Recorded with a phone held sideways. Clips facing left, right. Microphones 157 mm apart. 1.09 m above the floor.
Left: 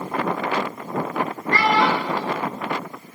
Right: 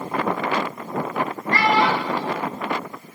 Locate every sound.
1.5 s a child speaking: 45° left (ahead or behind), 5 m